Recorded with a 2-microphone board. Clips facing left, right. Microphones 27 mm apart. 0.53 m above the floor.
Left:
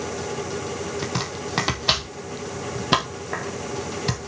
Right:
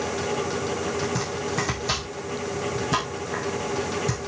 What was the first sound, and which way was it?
Chopping, 60° left (ahead or behind).